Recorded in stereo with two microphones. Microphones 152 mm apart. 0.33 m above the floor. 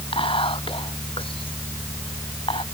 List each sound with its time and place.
0.1 s whispering: 35° left (ahead or behind)